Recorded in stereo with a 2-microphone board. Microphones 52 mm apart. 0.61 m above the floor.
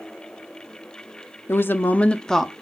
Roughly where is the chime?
No chime in this recording.